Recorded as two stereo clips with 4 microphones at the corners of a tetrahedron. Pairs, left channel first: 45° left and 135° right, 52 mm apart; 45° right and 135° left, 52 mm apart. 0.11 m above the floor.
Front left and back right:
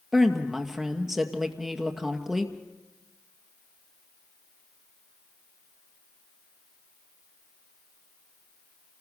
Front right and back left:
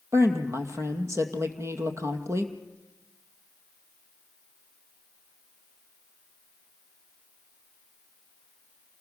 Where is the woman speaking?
140° left, 2 m.